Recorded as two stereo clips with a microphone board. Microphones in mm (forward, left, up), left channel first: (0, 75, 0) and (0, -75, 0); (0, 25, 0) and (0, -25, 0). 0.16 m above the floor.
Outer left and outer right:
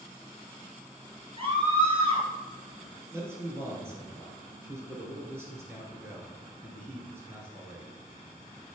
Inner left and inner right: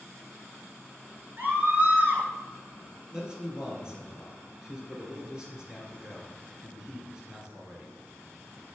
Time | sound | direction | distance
1.4 | a scream | 40° right (ahead or behind) | 3 m
3.1 | a man speaking | 15° right (ahead or behind) | 3 m